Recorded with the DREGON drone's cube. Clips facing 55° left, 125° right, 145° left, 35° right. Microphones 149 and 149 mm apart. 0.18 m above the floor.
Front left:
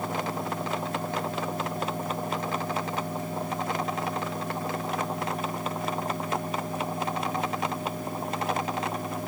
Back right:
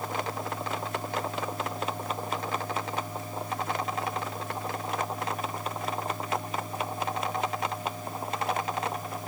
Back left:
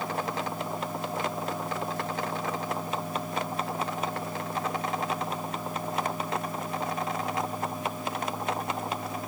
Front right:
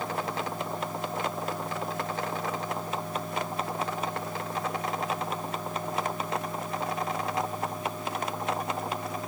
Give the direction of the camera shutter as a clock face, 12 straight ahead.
I don't hear a camera shutter.